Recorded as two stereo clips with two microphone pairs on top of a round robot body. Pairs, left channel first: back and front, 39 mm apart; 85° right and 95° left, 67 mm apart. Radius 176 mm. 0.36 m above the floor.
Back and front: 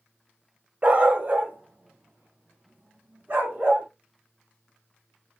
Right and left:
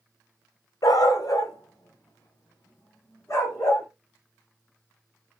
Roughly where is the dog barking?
Ahead right.